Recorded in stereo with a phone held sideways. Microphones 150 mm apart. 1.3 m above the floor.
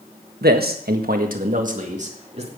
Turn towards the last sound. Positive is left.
turn(degrees=-45)  # may be behind; listen again after turning